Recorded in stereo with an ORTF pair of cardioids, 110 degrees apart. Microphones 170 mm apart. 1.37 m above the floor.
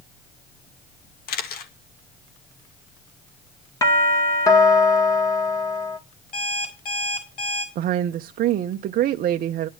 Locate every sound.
1.3 s a camera shutter: 65° left, 2 m
3.8 s a doorbell: 20° left, 2 m
6.3 s an alarm clock: 55° left, 6 m
7.8 s a woman speaking: 60° right, 0.7 m